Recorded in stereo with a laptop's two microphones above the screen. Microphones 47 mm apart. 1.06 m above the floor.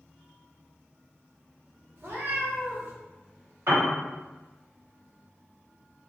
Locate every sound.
2.0 s a cat meowing: 55° right (ahead or behind), 1.0 m
3.7 s a piano: 70° right (ahead or behind), 1.3 m